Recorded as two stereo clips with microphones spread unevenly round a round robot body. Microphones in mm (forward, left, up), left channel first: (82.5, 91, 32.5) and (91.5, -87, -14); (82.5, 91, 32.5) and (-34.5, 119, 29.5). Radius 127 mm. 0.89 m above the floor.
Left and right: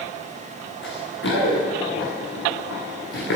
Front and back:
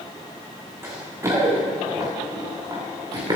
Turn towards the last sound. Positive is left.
turn(degrees=115)